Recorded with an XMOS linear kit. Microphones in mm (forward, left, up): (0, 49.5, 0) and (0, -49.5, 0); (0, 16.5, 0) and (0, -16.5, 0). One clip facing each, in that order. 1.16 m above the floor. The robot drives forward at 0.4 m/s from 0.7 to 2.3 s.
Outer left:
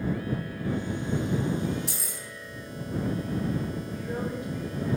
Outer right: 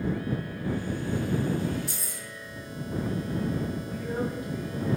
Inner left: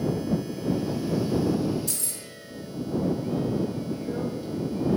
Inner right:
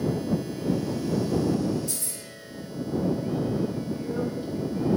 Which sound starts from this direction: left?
Keys jangling, at 1.9 s.